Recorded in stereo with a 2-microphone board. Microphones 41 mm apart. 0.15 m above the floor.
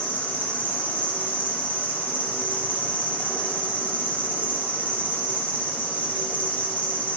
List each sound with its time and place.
0.0 s an insect: 50° left (ahead or behind), 1.3 m